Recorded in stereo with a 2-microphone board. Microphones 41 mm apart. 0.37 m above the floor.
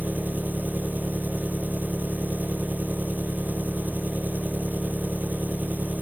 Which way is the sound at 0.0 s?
50° right (ahead or behind).